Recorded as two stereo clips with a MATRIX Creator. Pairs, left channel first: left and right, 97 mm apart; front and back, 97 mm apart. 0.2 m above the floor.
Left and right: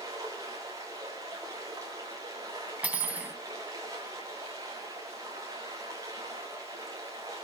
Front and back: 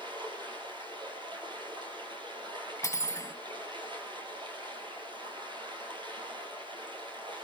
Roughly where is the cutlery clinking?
Ahead right.